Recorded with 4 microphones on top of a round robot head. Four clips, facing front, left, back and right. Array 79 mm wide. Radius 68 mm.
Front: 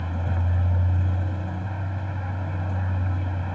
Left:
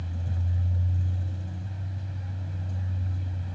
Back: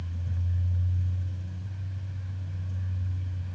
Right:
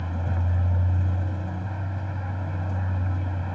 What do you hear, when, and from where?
0.0 s a vehicle: 35° right